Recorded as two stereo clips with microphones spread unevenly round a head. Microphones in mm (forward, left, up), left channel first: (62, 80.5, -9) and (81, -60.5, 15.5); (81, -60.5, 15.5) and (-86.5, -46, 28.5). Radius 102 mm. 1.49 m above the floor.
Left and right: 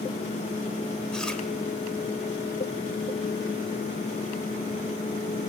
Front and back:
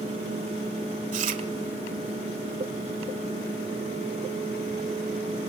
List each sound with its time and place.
1.1 s chewing: 170° right, 1.8 m